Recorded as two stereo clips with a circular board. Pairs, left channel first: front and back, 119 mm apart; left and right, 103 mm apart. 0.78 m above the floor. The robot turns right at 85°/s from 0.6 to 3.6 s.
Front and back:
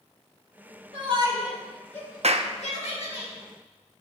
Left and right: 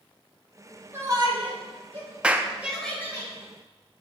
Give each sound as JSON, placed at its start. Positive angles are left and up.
{"t": 0.9, "sound": "a shout", "azimuth_deg": -155, "distance_m": 3.5}
{"t": 2.2, "sound": "a clap", "azimuth_deg": -170, "distance_m": 0.6}